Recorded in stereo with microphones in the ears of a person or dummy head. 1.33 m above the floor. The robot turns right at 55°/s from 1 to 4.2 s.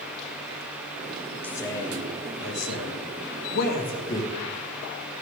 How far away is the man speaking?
About 1.8 m.